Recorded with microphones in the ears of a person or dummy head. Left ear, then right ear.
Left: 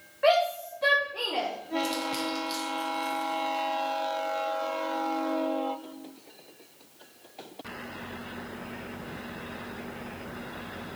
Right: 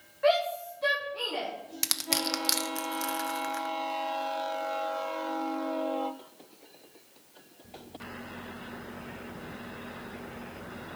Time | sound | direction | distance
0.2 | a shout | 20° left (ahead or behind) | 1.3 m
1.8 | crushing | 70° right (ahead or behind) | 0.6 m